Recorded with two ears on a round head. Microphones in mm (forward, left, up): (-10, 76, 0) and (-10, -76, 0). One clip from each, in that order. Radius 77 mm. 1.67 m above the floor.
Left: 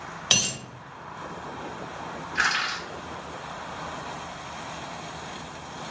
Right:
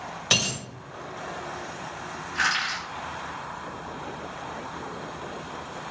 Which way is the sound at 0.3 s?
10° left (ahead or behind).